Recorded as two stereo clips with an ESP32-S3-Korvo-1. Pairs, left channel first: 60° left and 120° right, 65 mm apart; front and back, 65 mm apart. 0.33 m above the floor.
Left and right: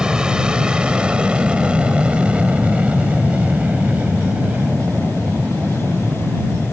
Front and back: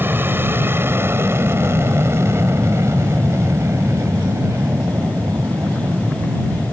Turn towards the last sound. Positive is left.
turn(degrees=180)